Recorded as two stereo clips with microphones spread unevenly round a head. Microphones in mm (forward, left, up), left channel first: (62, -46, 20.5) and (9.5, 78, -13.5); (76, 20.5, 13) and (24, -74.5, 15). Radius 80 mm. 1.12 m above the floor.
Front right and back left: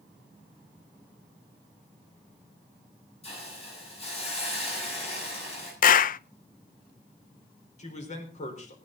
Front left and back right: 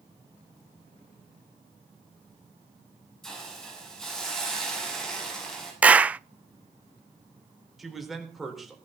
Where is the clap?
40° right, 0.5 m.